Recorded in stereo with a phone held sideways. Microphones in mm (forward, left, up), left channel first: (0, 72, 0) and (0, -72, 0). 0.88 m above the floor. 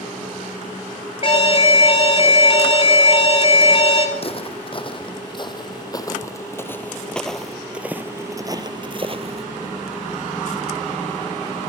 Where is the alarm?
40° left (ahead or behind), 3 m.